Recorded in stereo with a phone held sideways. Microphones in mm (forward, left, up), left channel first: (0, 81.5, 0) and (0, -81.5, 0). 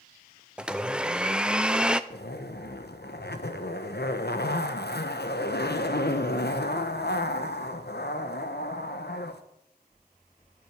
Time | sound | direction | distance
0.6 | a blender | 5° right (ahead or behind) | 0.7 m
2.1 | a zipper | 85° left | 1.2 m